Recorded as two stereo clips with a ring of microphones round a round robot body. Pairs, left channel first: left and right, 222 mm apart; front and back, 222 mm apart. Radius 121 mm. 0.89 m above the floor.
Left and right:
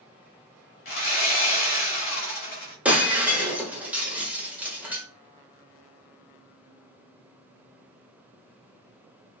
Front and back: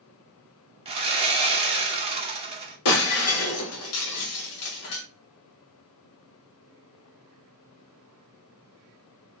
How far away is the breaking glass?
About 0.9 m.